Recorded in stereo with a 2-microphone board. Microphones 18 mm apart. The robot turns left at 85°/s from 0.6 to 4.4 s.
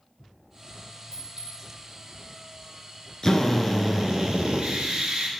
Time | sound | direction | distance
1.1 | a clink | 45° right (ahead or behind) | 2.5 m
3.2 | a drill | 30° left | 1.1 m